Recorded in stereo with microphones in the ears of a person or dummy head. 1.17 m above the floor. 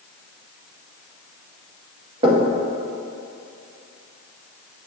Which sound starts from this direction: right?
Knocking, at 2.2 s.